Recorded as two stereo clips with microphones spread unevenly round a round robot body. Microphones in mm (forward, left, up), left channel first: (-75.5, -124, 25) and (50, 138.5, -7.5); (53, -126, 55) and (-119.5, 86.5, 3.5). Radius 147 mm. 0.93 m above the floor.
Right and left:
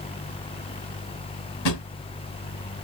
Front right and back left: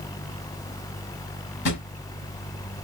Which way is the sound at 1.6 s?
95° right.